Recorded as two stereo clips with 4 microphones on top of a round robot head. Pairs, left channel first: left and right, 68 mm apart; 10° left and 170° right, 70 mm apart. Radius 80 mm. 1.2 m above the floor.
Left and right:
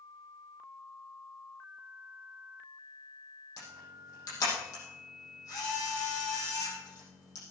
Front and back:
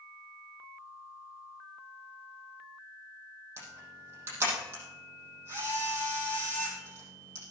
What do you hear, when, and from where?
3.6 s a camera shutter: 135° left, 7.5 m